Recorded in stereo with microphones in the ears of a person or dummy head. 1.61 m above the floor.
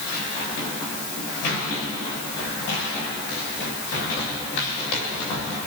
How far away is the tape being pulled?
No tape being pulled in this recording.